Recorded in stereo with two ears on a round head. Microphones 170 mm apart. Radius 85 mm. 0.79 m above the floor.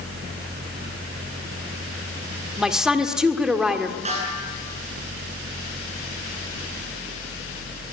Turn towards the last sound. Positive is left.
turn(degrees=-40)  # may be behind; listen again after turning